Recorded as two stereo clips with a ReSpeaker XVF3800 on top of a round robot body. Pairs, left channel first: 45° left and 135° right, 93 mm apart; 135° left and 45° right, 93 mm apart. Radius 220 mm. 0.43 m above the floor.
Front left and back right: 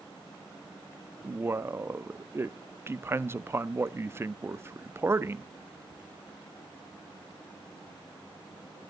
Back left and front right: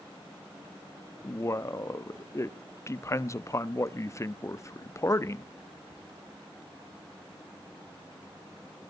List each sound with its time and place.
1.2 s a man speaking: 175° left, 1.0 m